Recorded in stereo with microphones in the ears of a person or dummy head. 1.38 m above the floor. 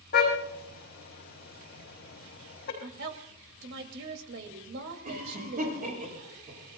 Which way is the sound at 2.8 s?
65° right (ahead or behind).